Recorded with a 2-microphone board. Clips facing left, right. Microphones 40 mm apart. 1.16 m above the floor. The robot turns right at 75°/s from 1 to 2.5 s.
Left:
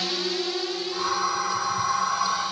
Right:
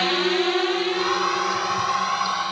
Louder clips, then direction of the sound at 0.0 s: Right 7 dB; 40° right (ahead or behind).